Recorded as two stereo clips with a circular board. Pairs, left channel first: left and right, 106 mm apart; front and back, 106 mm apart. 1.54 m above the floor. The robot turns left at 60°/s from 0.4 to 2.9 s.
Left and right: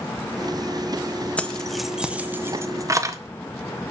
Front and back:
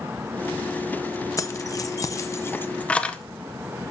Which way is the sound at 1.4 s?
25° left.